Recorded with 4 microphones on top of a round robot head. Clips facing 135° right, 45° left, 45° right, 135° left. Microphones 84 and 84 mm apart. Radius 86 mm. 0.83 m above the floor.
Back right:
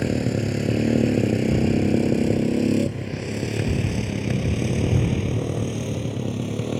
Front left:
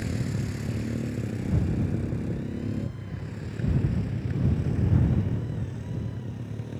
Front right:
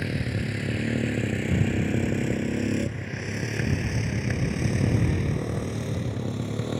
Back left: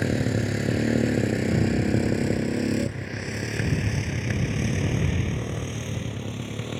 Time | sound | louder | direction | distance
0.0 | a motorcycle | back right 9 dB, back left 5 dB | 165° right | ?